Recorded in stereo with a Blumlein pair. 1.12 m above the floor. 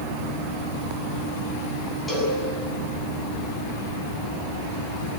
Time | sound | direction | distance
2.1 | a cowbell | 10° left | 8.5 m